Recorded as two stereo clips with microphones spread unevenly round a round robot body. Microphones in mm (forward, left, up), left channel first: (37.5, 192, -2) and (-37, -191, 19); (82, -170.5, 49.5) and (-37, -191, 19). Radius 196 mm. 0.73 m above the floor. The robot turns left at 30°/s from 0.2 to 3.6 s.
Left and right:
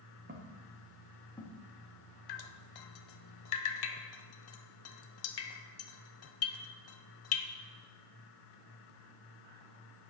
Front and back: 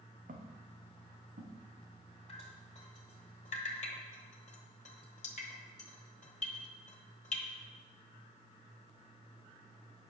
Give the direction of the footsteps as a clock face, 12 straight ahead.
6 o'clock.